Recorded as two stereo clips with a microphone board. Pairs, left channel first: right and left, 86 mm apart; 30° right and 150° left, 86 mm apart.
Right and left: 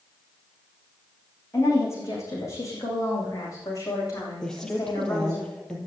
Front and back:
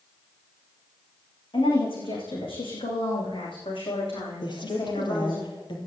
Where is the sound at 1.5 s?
35° right, 8 m; by 5.4 s 40° right, 10 m.